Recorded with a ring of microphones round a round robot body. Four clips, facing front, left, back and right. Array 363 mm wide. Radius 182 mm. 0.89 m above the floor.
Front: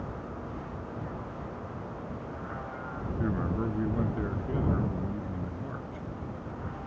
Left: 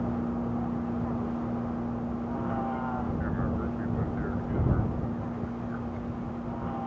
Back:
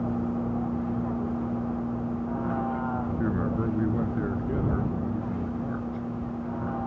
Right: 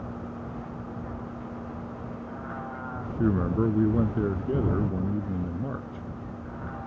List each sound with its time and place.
0.0 s a vehicle: 150° left; by 6.9 s 160° left
3.2 s a man speaking: 95° right